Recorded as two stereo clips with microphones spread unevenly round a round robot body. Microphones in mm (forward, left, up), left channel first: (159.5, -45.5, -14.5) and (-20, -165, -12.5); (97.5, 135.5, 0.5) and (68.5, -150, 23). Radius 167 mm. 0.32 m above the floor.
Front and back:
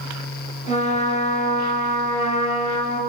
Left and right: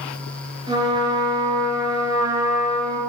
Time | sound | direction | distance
0.7 | a trumpet | 20° right | 4 m